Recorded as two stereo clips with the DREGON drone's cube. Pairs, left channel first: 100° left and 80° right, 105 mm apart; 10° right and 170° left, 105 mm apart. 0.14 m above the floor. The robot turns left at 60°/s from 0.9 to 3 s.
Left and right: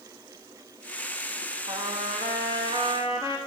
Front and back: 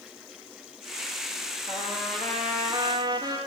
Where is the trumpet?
60° right, 2.5 m; by 3.4 s 140° right, 2.5 m.